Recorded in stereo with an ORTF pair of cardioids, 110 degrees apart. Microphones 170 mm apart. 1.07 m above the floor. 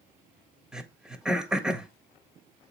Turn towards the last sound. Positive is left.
turn(degrees=-5)